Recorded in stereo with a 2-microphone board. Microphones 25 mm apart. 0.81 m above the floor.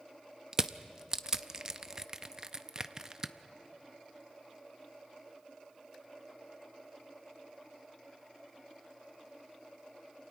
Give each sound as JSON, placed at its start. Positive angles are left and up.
{"t": 0.5, "sound": "crushing", "side_deg": -25, "distance_m": 0.5}